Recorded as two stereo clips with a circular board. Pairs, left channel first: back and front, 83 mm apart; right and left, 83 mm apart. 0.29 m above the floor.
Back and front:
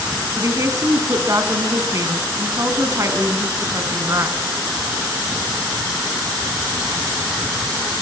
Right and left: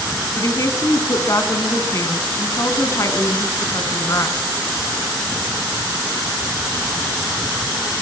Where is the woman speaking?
45° right, 2.5 m.